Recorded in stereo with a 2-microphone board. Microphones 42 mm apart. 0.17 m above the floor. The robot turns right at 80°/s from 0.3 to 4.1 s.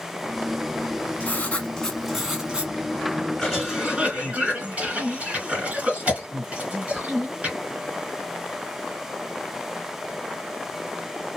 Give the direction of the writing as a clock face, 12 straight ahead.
8 o'clock.